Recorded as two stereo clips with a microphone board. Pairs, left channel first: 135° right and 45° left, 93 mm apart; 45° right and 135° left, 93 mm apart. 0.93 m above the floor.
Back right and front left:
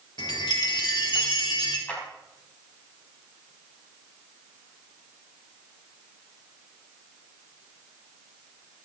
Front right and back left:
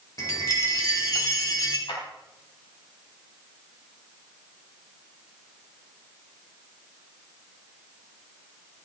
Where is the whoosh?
No whoosh in this recording.